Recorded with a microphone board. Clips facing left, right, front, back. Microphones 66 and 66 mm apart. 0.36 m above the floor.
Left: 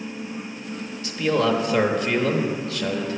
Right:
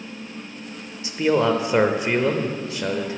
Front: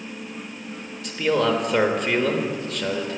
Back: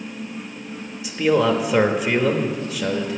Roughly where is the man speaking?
Right.